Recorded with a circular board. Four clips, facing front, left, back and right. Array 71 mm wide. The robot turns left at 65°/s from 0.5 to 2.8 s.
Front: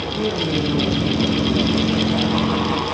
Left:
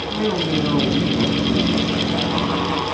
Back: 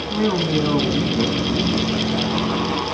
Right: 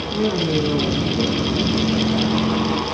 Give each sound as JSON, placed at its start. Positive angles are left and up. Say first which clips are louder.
{"t": 0.1, "sound": "a man speaking", "louder": "right 1 dB, back 3 dB", "azimuth_deg": 155, "distance_m": 3.0}